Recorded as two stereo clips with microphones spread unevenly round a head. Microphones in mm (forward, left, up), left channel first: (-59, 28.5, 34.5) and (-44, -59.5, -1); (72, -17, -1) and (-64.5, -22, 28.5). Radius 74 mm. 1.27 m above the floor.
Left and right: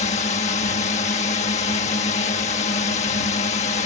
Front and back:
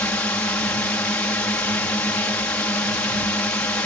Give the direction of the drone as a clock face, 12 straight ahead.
9 o'clock.